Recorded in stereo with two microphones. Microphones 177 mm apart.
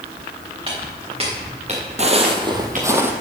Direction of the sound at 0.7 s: 30° right (ahead or behind).